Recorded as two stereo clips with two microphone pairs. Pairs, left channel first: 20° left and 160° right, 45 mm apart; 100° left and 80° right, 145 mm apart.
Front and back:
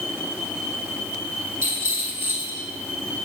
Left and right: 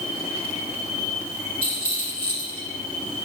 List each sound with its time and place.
1.6 s a rattle: 130° right, 3 m